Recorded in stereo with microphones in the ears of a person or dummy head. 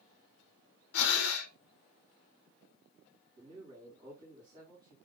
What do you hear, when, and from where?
0.9 s breathing: 85° left, 0.7 m
3.4 s a man speaking: 25° right (ahead or behind), 2 m